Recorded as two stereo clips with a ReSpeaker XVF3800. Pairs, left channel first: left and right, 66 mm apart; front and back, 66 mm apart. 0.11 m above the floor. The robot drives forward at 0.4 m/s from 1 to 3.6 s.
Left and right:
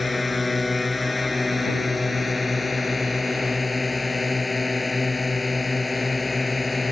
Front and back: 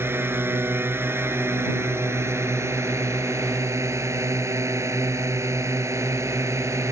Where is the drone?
Straight behind.